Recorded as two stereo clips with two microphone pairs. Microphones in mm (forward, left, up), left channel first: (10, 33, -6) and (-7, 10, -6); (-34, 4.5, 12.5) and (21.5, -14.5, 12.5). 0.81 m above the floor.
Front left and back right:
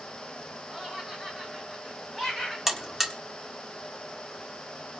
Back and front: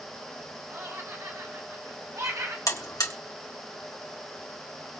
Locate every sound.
0.7 s laughter: 50° right, 6 m; by 2.6 s 35° right, 4.5 m
2.7 s a buzzer: 160° left, 1.6 m